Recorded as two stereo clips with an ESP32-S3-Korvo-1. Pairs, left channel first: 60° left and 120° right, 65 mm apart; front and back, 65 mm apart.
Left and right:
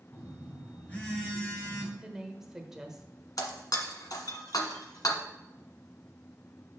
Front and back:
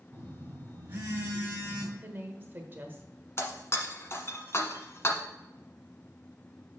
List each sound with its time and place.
0.1 s a phone buzzing: 120° left, 2.5 m
2.0 s a woman speaking: 160° left, 1.2 m
3.4 s breaking glass: 50° left, 1.2 m